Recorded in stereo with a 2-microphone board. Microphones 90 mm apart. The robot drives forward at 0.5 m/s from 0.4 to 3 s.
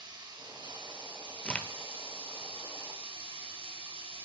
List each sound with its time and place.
0.0 s running water: 55° right (ahead or behind), 2.0 m; by 4.3 s 80° right, 1.7 m
1.4 s a crack: 15° left (ahead or behind), 0.9 m; by 1.7 s 10° left (ahead or behind), 1.0 m